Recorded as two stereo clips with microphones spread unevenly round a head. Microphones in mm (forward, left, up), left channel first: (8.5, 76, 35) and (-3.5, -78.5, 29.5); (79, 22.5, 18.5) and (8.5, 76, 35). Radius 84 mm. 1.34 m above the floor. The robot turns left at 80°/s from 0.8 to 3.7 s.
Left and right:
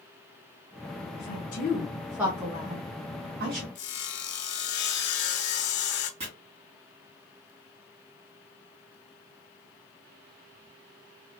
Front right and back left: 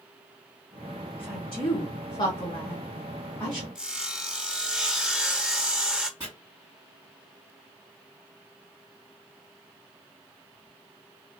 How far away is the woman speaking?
About 1.0 m.